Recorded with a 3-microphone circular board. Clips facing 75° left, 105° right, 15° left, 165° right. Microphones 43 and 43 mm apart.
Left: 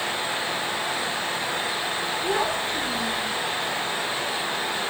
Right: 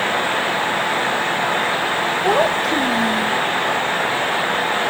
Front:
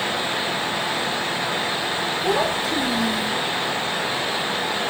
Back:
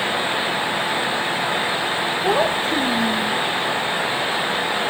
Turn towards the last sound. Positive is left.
turn(degrees=-120)